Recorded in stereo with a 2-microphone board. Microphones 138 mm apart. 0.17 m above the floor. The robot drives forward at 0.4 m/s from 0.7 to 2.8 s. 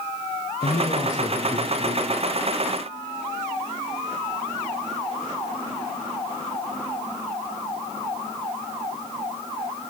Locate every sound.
0.6 s a woman speaking: 60° left (ahead or behind), 2.5 m